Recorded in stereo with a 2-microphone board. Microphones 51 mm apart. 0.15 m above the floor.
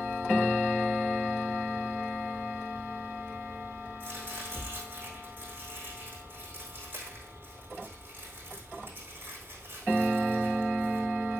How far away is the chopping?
About 4.5 m.